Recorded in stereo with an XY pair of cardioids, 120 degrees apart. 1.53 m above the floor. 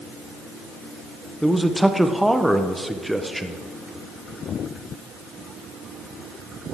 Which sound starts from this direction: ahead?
A man speaking, at 1.4 s.